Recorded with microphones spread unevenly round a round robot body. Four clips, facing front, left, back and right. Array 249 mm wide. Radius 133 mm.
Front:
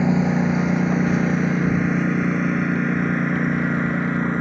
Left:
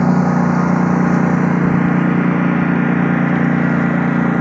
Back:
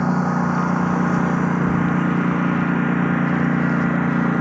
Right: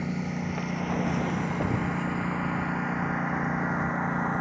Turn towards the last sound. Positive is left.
turn(degrees=105)